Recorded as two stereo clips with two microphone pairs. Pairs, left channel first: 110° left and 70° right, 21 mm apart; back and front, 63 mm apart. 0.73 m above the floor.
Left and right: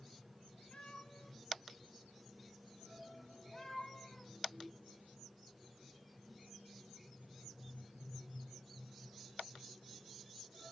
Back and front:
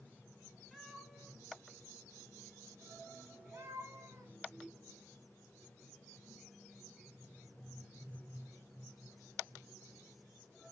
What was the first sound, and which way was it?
A cat meowing, 90° left.